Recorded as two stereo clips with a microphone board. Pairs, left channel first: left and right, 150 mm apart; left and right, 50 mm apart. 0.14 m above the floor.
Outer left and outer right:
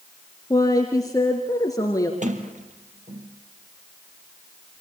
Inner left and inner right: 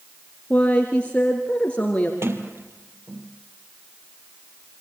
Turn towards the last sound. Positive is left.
turn(degrees=-60)  # may be behind; listen again after turning